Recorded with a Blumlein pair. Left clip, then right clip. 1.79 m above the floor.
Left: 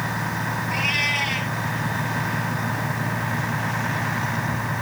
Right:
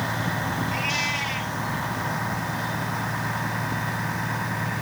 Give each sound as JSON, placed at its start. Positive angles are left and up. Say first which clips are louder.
{"t": 0.7, "sound": "a cat meowing", "louder": "left 5 dB", "azimuth_deg": 15}